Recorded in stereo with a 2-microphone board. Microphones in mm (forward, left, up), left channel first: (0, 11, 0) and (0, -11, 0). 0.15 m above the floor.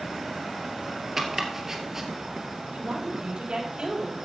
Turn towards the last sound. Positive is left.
turn(degrees=-50)  # may be behind; listen again after turning